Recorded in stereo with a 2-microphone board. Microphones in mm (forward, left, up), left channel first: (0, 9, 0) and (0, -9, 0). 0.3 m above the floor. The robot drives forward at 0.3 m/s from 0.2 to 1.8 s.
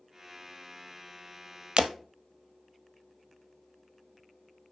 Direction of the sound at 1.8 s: 75° right (ahead or behind).